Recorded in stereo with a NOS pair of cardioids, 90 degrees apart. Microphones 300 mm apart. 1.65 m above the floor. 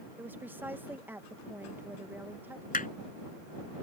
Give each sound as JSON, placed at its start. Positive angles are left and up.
{"t": 0.2, "sound": "a woman speaking", "azimuth_deg": -5}
{"t": 2.7, "sound": "hammering", "azimuth_deg": 25}